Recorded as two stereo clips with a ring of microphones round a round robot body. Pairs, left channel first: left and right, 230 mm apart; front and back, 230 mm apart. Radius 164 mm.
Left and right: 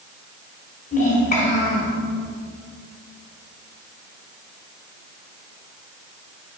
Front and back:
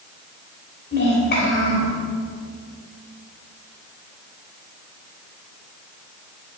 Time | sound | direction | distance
0.9 | a child speaking | 50° left | 2 m